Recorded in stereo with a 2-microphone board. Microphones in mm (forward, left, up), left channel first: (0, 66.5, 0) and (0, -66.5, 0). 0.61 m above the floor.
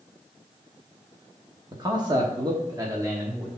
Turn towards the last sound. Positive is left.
turn(degrees=-20)  # may be behind; listen again after turning